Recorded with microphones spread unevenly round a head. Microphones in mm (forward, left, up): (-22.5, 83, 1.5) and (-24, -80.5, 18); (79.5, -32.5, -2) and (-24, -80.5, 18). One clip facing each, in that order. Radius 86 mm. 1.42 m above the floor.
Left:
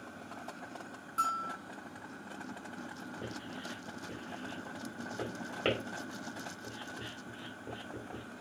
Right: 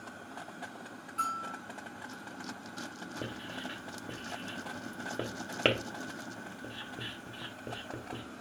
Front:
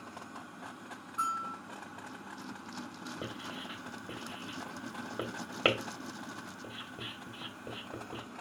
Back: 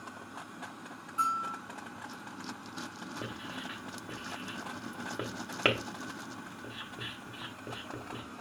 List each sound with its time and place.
1.2 s a bell: 125° left, 1.6 m
3.2 s writing: 60° right, 1.3 m